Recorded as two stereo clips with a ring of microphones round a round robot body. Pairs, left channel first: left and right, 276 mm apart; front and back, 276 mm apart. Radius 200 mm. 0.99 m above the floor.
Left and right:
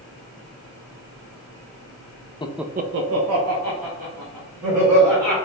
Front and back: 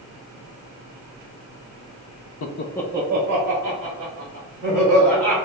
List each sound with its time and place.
2.4 s laughter: 20° left, 0.6 m; by 5.3 s 135° right, 4 m